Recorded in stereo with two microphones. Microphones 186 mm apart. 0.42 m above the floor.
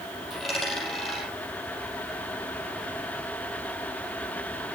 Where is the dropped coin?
Centre (ahead or behind), 6.5 m.